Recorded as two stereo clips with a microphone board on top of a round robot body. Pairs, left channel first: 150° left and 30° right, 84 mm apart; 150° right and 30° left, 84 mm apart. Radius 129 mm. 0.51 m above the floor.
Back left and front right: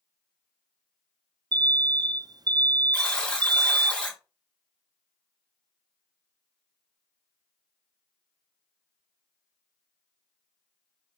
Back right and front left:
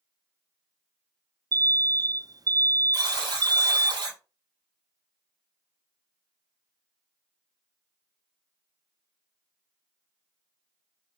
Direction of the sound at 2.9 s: 75° left.